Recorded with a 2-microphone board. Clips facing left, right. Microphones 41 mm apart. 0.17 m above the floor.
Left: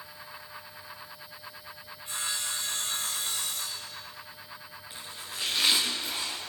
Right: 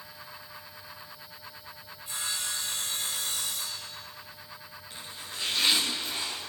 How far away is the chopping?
About 5 m.